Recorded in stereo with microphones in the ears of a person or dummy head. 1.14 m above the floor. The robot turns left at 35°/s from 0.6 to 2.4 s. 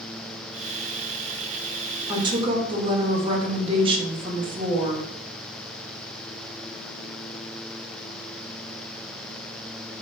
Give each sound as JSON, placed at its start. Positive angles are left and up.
{"t": 2.1, "sound": "a woman speaking", "side_deg": -20, "distance_m": 1.0}